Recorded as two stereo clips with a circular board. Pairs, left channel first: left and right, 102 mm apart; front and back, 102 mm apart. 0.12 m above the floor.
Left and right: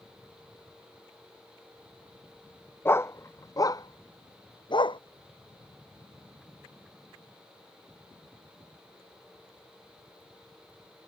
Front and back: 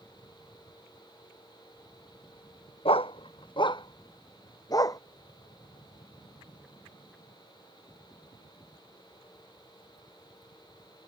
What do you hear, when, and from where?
2.9 s a dog barking: 25° left; by 5.0 s 55° left